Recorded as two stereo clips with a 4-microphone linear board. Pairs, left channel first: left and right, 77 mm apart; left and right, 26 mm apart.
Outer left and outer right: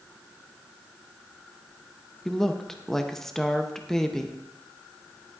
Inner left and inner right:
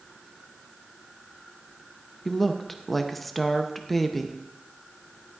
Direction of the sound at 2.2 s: 5° left (ahead or behind).